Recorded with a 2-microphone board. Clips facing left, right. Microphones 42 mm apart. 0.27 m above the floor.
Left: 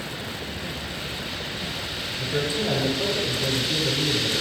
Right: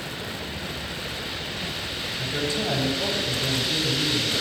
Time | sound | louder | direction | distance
2.2 | a man speaking | left 2 dB | 30° left (ahead or behind) | 6 m